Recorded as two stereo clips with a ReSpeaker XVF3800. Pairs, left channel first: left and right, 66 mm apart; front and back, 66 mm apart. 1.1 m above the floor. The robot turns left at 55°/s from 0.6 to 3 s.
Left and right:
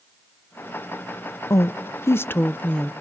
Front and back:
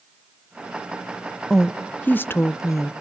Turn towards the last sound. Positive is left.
turn(degrees=5)